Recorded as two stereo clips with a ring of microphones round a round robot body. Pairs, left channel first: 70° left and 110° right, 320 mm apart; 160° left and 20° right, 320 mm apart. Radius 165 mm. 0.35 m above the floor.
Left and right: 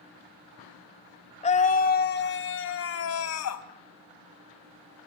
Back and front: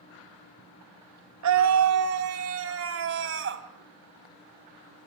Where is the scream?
Straight ahead, 1.7 m; by 3.6 s 30° left, 2.5 m.